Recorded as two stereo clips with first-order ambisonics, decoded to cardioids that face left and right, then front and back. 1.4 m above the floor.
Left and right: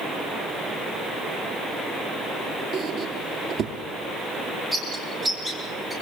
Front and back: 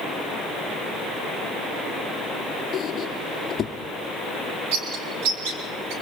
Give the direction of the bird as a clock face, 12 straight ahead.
6 o'clock.